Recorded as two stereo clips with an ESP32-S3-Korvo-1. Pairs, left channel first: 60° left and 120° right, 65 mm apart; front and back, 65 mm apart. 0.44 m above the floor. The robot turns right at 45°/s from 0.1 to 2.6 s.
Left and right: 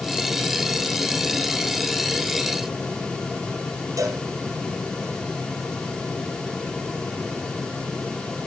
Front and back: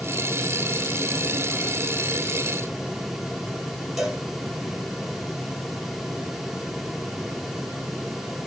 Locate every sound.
4.0 s a cowbell: 95° right, 5 m